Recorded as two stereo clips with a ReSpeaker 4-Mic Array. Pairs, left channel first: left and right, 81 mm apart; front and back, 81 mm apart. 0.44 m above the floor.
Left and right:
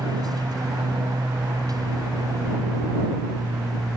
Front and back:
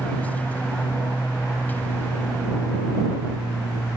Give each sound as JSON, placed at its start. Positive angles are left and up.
{"t": 0.0, "sound": "an aircraft", "azimuth_deg": -70}